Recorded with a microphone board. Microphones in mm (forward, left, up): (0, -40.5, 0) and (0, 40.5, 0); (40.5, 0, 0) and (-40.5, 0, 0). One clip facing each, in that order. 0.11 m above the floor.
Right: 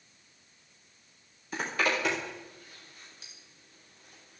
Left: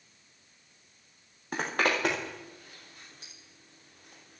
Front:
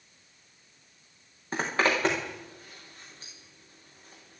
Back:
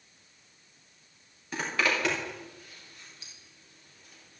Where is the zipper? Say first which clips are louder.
Left 1 dB, front 3 dB; 55° left, 5.5 m.